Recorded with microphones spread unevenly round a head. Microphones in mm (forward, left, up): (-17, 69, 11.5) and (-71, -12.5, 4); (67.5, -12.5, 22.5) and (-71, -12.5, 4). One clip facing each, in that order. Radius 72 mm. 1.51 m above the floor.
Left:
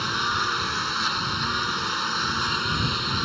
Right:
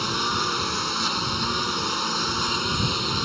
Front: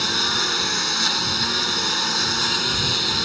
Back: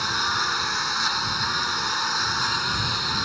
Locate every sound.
0.0 s a lawn mower: 55° right